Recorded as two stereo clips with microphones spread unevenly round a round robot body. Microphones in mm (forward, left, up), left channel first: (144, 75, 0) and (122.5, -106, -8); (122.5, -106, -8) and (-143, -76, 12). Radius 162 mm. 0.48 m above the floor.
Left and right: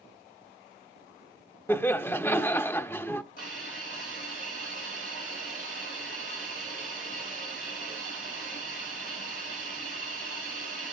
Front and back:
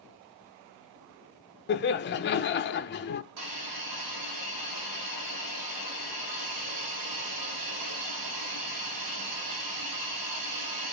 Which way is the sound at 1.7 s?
5° left.